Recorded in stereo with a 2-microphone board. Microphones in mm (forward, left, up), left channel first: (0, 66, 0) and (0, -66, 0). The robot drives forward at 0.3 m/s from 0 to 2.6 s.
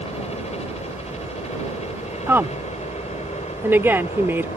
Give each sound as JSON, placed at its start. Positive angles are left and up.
{"t": 0.0, "sound": "a helicopter", "side_deg": 55}
{"t": 2.3, "sound": "a woman speaking", "side_deg": -15}